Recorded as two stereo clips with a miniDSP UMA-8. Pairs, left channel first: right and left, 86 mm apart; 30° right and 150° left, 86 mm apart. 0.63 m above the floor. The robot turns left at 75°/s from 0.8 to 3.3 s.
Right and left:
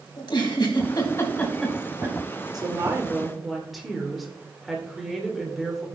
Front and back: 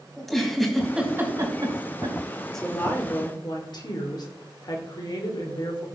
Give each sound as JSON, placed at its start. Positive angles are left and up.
{"t": 0.2, "sound": "a giggle", "azimuth_deg": -115, "distance_m": 2.5}
{"t": 2.5, "sound": "a woman speaking", "azimuth_deg": 55, "distance_m": 2.5}